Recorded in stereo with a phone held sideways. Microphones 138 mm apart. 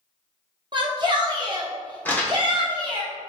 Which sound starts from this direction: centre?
Crumpling, at 2.0 s.